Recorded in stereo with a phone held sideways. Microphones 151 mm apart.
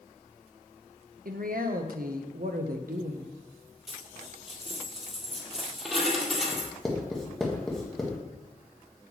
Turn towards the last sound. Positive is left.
turn(degrees=5)  # may be behind; listen again after turning